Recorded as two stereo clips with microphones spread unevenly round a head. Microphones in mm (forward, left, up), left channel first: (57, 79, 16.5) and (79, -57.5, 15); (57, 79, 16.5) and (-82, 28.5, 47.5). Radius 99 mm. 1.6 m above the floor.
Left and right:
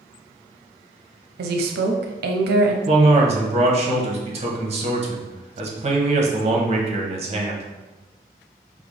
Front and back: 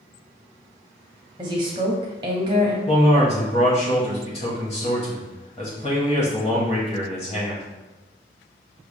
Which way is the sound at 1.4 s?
95° right.